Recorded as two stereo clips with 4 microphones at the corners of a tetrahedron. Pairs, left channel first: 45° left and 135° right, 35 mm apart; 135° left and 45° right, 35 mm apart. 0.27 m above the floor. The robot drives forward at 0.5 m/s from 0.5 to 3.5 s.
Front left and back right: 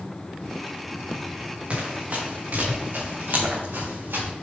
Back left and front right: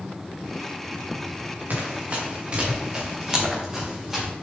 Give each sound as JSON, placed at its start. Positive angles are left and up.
{"t": 1.7, "sound": "running footsteps", "azimuth_deg": -85, "distance_m": 3.5}